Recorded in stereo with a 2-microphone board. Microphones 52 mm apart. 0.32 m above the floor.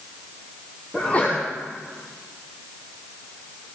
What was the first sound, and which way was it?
A sneeze, 25° left (ahead or behind).